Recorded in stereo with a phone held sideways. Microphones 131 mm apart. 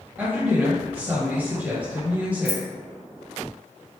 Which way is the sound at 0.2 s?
10° right (ahead or behind).